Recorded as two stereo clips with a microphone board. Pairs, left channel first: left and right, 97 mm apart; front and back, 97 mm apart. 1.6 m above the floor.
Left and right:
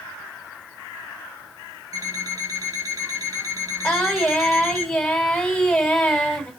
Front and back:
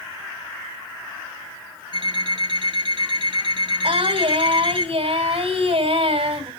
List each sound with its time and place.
1.9 s an alarm clock: 145° right, 9.5 m
3.8 s singing: 170° left, 5.5 m